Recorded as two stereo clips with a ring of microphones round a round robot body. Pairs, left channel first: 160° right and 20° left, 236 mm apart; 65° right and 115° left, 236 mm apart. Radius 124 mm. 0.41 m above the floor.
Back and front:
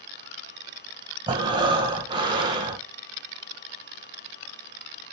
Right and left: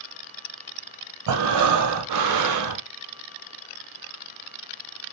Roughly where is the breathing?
Left.